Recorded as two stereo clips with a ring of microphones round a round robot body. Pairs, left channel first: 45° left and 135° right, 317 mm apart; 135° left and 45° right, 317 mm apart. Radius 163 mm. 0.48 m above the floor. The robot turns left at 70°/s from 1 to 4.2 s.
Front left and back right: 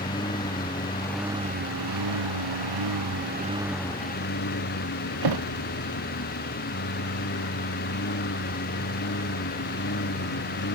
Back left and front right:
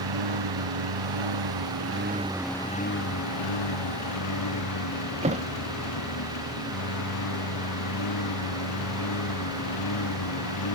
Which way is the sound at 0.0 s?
30° right.